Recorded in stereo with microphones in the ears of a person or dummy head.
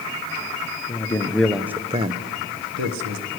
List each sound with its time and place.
0.9 s a man speaking: 20° left (ahead or behind), 0.9 m; by 3.3 s 75° right (ahead or behind), 1.0 m